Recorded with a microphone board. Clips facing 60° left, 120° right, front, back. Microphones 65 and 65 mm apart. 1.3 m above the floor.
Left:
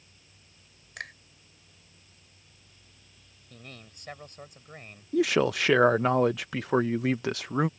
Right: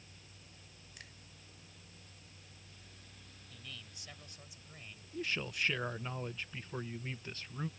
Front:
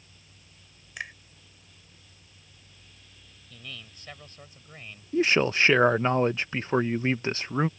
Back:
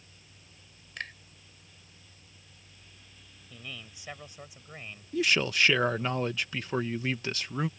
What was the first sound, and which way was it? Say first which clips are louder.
A finger snap: left 17 dB, front 2 dB; 80° left.